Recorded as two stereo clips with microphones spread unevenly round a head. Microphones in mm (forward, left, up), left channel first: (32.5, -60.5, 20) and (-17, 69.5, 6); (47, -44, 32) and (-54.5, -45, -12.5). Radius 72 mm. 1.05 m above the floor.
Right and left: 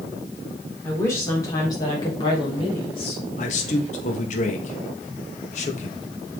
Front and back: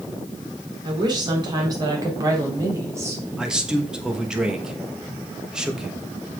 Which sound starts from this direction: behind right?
A woman speaking, at 0.8 s.